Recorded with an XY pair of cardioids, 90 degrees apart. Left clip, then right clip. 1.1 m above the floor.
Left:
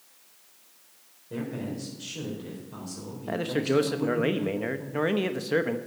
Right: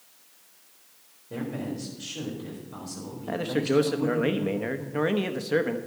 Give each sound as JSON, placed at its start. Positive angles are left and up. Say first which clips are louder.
{"t": 1.3, "sound": "a man speaking", "louder": "right 1 dB", "azimuth_deg": -5, "distance_m": 4.0}
{"t": 3.3, "sound": "a man speaking", "louder": "even", "azimuth_deg": 10, "distance_m": 0.9}